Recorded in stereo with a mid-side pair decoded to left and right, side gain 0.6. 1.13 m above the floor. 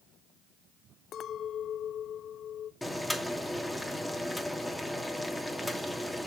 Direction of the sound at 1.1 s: 50° left.